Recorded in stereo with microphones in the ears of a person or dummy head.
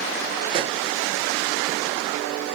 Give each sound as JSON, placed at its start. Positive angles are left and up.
{"t": 0.5, "sound": "a pop", "side_deg": -30, "distance_m": 0.7}